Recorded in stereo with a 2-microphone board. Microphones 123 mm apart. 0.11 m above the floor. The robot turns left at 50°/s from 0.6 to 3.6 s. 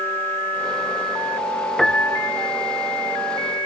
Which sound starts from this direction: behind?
A piano, at 1.8 s.